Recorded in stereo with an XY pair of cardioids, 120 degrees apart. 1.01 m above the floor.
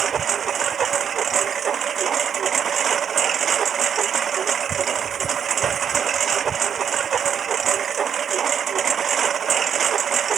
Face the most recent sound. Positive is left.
turn(degrees=-40)